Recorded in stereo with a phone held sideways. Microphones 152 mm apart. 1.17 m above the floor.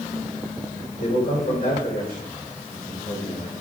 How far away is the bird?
No bird in this recording.